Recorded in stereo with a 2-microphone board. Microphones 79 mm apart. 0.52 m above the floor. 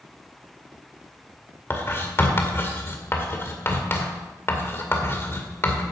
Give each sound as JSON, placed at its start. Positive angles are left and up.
{"t": 1.7, "sound": "writing", "side_deg": 35, "distance_m": 1.9}